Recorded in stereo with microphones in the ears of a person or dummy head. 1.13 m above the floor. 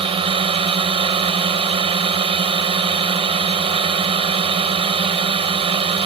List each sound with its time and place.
0.0 s a drone: 25° right (ahead or behind)